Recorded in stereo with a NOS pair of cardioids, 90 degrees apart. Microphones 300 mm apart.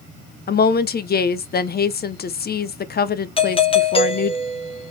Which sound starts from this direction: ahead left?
A woman speaking, at 0.5 s.